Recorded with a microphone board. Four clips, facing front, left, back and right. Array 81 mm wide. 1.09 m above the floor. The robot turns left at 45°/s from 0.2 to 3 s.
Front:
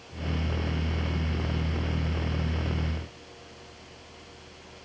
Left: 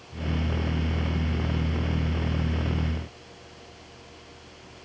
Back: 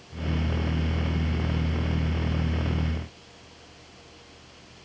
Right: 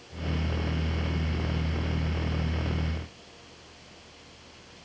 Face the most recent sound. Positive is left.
No sound to turn to.